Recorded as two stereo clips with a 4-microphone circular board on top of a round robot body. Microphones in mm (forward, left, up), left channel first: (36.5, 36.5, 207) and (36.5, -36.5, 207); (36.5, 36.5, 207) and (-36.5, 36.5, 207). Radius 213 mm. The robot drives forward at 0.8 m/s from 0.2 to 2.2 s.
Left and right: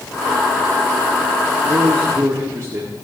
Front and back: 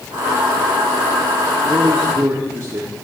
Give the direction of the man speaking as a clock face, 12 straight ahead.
4 o'clock.